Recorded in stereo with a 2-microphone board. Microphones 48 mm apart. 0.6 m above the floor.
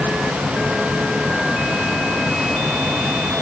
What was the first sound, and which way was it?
Only background noise.